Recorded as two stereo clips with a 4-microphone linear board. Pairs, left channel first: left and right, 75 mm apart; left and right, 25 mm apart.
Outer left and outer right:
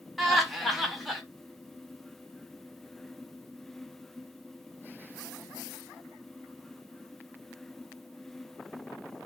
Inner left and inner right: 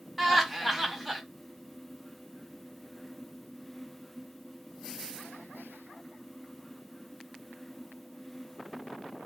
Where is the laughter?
Centre (ahead or behind), 0.8 m.